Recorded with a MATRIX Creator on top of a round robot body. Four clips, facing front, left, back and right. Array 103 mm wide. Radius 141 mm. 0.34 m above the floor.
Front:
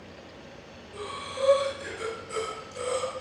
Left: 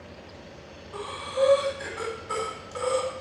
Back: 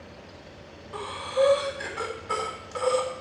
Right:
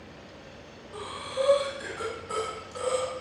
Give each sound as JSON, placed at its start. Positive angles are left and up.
{"t": 0.9, "sound": "breathing", "azimuth_deg": 165, "distance_m": 3.5}